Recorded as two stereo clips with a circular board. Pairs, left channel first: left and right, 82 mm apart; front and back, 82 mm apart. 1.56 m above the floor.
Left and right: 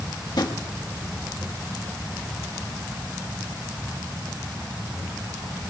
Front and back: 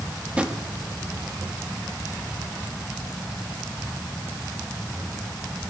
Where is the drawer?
105° left, 1.7 m.